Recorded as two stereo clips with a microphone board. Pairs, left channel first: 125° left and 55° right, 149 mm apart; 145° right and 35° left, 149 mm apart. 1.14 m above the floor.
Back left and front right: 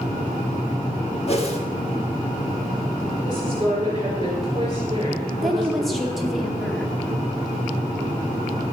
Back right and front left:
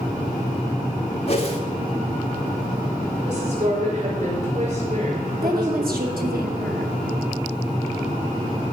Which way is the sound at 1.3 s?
170° left.